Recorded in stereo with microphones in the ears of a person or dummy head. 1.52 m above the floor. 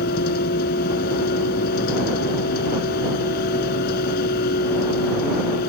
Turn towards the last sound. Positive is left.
turn(degrees=55)  # may be behind; listen again after turning